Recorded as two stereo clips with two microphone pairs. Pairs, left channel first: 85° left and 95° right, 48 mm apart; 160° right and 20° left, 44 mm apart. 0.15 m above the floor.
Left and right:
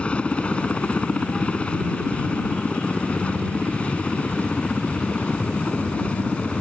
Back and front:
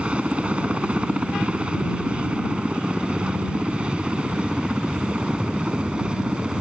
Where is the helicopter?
50° left; by 6.6 s 60° left.